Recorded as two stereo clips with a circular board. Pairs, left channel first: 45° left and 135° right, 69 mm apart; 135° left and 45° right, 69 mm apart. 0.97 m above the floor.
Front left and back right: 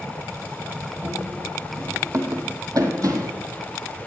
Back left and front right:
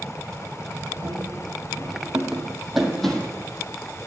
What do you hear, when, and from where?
1.0 s running footsteps: 85° right, 2 m; by 3.4 s 150° right, 2 m